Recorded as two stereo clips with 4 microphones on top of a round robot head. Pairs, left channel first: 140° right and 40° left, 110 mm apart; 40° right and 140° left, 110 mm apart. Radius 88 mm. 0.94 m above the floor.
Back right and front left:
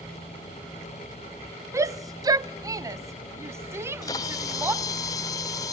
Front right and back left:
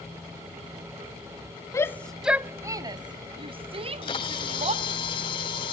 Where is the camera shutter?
85° right, 0.7 m.